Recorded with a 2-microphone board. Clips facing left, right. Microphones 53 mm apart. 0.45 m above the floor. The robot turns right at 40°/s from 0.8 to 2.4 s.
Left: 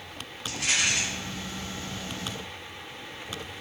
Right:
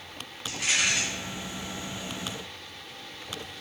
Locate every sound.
0.5 s a rattle: 5° right (ahead or behind), 2.5 m; by 1.0 s centre (ahead or behind), 2.5 m